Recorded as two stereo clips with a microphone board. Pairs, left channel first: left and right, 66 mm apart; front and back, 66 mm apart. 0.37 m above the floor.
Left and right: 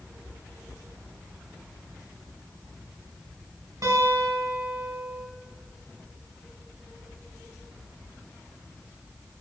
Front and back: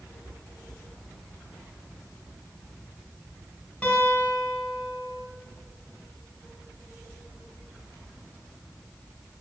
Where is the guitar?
70° right, 2.5 m.